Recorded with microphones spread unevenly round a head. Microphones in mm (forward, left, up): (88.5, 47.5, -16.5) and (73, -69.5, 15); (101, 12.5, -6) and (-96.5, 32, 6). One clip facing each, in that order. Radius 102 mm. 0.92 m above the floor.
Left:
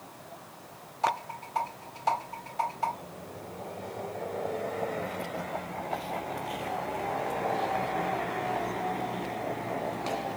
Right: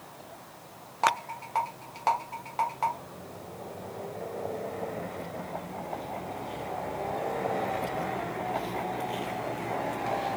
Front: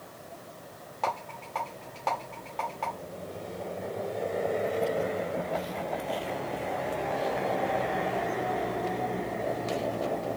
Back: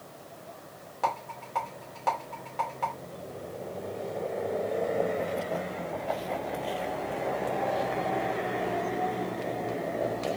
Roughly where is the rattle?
Right.